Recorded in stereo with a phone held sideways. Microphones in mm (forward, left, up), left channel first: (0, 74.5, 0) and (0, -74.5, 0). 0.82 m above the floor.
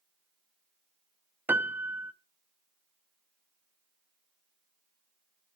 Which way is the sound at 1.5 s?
15° right (ahead or behind).